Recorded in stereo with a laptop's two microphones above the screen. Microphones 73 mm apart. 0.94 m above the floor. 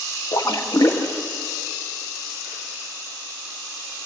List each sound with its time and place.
0.3 s a splash: 75° left (ahead or behind), 1.7 m